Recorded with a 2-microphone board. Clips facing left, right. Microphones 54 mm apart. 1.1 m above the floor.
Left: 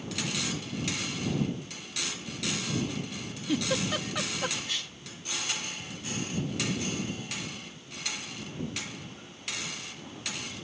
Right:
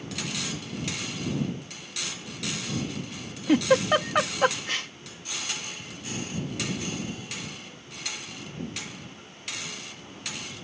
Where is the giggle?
50° right (ahead or behind).